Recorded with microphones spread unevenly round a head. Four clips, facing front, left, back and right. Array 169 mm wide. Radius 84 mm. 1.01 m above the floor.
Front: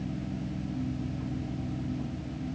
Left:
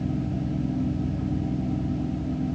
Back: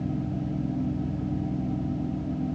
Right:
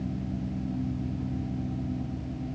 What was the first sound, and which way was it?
Only background noise.